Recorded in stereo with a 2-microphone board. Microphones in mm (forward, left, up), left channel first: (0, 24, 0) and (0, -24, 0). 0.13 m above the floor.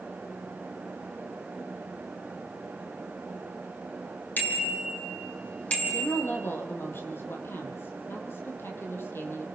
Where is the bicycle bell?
45° left (ahead or behind), 4 m; by 6.2 s 25° left (ahead or behind), 3.5 m.